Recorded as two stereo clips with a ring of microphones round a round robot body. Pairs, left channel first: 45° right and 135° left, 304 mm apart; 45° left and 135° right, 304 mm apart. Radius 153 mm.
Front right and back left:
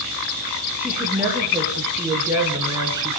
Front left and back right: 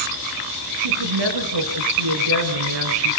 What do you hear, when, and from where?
0.8 s a woman speaking: 140° right, 6.5 m; by 3.2 s 150° right, 4.5 m